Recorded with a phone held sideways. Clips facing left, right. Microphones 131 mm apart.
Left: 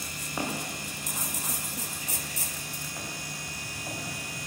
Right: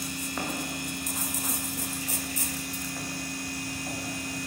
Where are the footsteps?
10° left (ahead or behind), 5.5 m; by 4.0 s centre (ahead or behind), 9.5 m.